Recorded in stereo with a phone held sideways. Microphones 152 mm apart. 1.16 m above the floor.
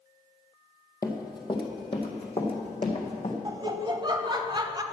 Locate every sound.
1.0 s running footsteps: 25° left (ahead or behind), 1.4 m; by 3.4 s 45° left (ahead or behind), 3 m
3.5 s laughter: 30° right (ahead or behind), 0.9 m